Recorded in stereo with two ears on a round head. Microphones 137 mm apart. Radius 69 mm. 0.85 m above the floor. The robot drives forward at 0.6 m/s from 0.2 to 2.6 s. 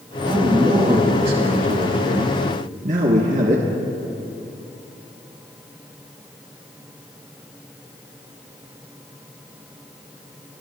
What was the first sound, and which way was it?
A man speaking, 30° right (ahead or behind).